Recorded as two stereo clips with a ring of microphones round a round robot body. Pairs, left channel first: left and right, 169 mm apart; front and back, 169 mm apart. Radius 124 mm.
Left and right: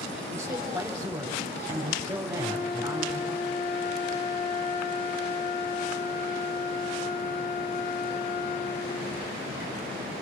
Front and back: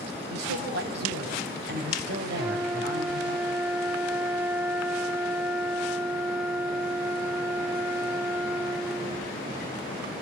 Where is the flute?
105° left, 1.2 m.